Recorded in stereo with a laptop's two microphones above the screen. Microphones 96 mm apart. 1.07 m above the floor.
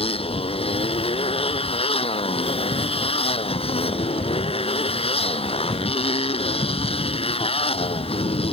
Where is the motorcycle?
80° left; by 8.5 s 85° left.